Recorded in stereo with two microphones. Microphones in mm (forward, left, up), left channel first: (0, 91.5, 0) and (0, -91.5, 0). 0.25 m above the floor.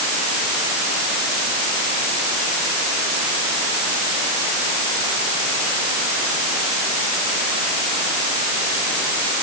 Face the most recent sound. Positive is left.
No sound to turn to.